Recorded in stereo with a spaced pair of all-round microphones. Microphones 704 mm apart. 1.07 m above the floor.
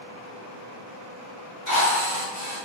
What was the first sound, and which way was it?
A drill, 80° left.